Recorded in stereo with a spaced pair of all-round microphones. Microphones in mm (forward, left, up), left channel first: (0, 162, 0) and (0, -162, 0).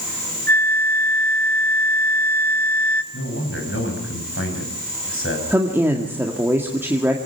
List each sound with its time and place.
0.5 s a flute: 30° right (ahead or behind), 0.8 m
3.1 s a man speaking: 40° left (ahead or behind), 5.5 m
5.5 s a woman speaking: 5° right (ahead or behind), 1.9 m